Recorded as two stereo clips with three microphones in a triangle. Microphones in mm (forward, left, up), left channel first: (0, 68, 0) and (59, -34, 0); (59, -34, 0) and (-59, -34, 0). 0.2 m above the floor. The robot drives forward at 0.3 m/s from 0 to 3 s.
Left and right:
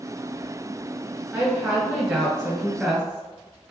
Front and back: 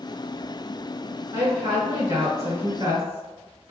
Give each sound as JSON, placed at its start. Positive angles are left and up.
{"t": 1.3, "sound": "a woman speaking", "azimuth_deg": -130, "distance_m": 1.7}